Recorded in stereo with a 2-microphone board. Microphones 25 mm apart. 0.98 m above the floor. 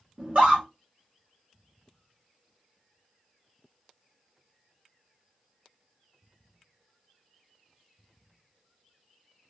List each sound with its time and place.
0.2 s a scream: 45° right (ahead or behind), 1.6 m